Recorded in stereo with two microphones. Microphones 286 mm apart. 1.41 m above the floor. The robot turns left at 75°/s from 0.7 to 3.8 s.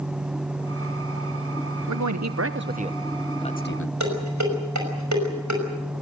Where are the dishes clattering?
75° right (ahead or behind), 5.5 m.